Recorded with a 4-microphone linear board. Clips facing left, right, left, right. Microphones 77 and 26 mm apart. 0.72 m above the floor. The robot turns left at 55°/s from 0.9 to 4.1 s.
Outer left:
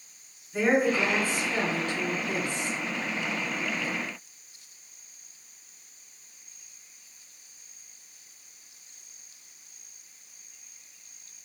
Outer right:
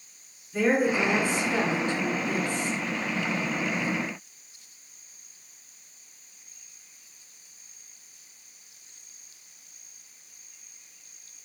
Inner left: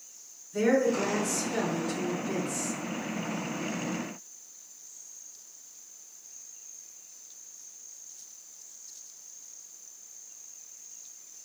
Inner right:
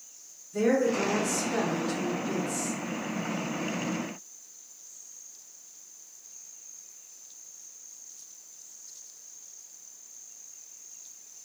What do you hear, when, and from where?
0.5 s a woman speaking: 5° right, 1.6 m; by 2.8 s 105° right, 1.6 m